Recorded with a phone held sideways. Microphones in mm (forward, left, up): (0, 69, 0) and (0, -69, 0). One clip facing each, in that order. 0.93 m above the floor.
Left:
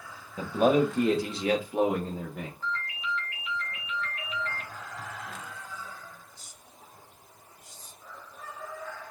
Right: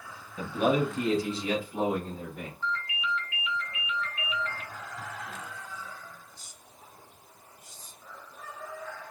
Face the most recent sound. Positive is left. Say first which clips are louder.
# right 3 dB
turn(degrees=45)  # may be behind; listen again after turning